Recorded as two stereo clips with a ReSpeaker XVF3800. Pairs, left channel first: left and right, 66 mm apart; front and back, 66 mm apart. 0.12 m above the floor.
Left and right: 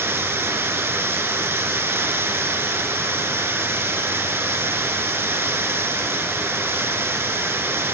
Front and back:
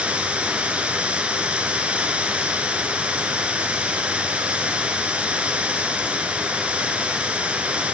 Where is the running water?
120° right, 1.7 m.